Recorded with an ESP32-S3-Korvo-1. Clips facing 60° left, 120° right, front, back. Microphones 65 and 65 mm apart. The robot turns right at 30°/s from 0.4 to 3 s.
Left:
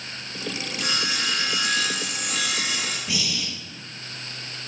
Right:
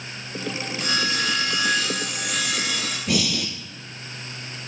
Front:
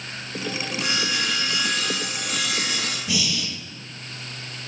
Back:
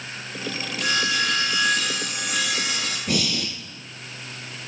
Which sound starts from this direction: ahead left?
Sawing, at 0.8 s.